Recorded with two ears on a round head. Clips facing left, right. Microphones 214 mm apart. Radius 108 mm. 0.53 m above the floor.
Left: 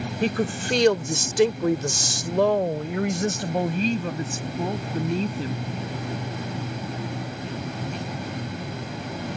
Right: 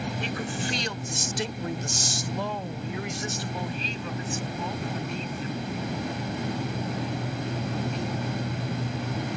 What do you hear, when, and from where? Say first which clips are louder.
0.2 s a woman speaking: left 7 dB; 40° left (ahead or behind); by 5.7 s 30° left (ahead or behind)